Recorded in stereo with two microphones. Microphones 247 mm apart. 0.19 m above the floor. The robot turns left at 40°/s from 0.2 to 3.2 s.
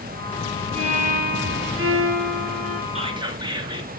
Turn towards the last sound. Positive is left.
turn(degrees=-15)  # may be behind; listen again after turning